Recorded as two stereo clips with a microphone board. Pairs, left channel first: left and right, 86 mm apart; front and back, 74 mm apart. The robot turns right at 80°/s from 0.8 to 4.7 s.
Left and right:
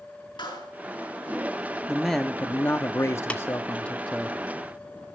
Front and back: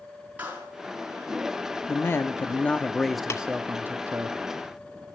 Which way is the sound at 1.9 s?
10° right.